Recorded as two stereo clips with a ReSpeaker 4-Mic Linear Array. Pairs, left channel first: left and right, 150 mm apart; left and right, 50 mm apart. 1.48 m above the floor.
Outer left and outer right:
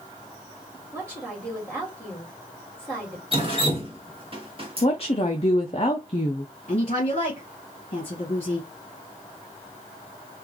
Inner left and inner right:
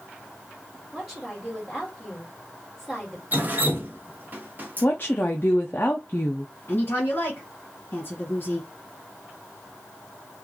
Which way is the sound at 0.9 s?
5° left (ahead or behind).